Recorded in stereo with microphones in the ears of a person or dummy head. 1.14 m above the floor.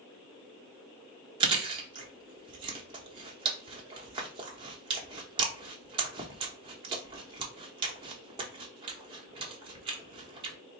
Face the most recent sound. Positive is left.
turn(degrees=-25)  # may be behind; listen again after turning